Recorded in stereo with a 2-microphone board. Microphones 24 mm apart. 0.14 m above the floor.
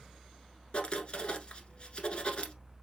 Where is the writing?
45° left (ahead or behind), 0.9 m.